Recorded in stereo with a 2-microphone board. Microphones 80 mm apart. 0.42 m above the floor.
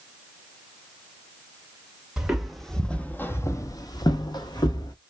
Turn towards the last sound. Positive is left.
turn(degrees=55)  # may be behind; listen again after turning